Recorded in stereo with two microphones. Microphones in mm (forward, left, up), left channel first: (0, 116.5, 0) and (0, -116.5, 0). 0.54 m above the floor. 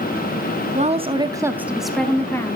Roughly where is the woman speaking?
Right.